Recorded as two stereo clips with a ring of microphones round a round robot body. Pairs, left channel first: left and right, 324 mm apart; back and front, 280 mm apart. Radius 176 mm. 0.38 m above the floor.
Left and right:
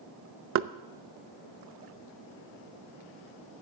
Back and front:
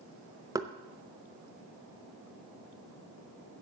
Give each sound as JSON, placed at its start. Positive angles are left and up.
{"t": 0.6, "sound": "knocking", "azimuth_deg": -70, "distance_m": 0.6}